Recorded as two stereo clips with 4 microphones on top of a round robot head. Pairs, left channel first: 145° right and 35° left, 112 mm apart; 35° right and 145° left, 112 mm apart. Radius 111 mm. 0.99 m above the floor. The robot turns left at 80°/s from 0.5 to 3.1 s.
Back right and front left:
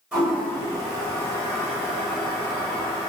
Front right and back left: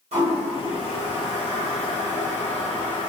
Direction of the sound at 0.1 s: 115° left.